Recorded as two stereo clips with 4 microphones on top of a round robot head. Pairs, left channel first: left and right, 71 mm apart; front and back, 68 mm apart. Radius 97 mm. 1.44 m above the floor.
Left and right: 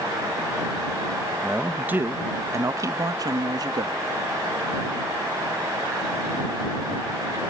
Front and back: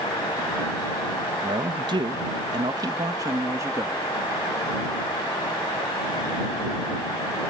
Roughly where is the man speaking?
Behind.